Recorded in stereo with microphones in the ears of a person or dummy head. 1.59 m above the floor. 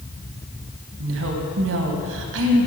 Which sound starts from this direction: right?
A woman speaking, at 1.0 s.